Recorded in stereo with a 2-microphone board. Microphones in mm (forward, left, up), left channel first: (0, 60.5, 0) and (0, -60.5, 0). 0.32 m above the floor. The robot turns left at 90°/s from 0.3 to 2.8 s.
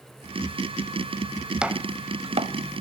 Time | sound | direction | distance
1.6 | chopping | 10° right (ahead or behind) | 0.7 m